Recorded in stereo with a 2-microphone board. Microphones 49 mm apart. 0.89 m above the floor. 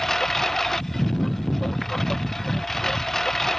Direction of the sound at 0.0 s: 5° left (ahead or behind).